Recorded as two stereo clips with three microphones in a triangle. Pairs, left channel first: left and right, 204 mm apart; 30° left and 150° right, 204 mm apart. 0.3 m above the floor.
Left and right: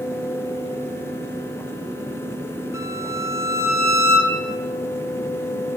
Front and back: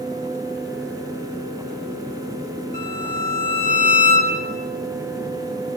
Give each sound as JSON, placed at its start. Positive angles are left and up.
{"t": 2.7, "sound": "a violin", "azimuth_deg": -165, "distance_m": 2.5}